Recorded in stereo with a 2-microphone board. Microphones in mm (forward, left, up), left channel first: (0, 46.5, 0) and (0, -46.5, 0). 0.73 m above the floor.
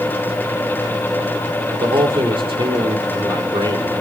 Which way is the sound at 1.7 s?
65° right (ahead or behind).